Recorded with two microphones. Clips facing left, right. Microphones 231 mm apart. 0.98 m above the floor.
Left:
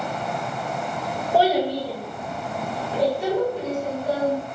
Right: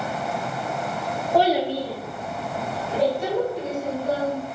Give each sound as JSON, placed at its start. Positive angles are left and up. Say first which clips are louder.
{"t": 1.3, "sound": "a child speaking", "louder": "even", "side_deg": 5, "distance_m": 0.8}